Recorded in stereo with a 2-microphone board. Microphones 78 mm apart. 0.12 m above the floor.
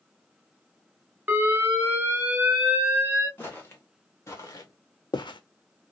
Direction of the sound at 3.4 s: 25° left (ahead or behind).